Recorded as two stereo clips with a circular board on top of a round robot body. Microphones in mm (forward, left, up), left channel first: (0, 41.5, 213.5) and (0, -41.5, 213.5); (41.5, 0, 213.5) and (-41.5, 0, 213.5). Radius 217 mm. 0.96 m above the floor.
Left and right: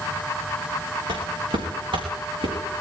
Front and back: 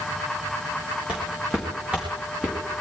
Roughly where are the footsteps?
Right.